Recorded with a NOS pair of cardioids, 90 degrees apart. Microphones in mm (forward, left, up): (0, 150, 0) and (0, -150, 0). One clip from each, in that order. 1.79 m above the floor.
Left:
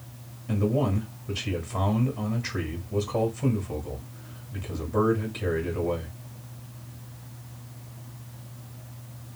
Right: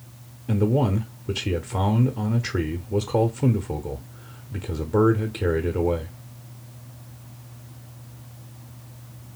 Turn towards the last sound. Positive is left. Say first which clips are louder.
# right 3 dB
turn(degrees=-35)